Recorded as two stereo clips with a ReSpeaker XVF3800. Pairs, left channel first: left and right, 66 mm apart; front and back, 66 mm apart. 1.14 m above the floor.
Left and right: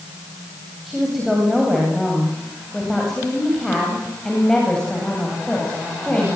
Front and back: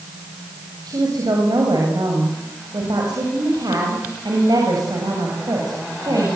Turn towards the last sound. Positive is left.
turn(degrees=160)